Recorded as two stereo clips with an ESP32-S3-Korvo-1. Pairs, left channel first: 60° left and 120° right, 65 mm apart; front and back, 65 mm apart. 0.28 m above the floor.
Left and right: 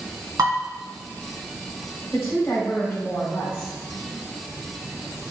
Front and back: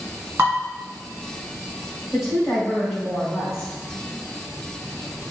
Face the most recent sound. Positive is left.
turn(degrees=90)